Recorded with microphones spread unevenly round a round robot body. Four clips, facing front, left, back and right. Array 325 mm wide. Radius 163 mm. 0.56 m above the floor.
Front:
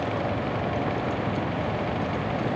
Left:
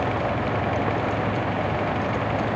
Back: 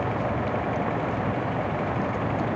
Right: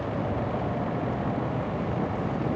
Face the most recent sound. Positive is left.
No sound to turn to.